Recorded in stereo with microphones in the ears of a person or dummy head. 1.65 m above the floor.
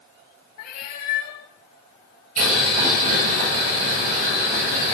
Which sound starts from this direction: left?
A cat meowing, at 0.6 s.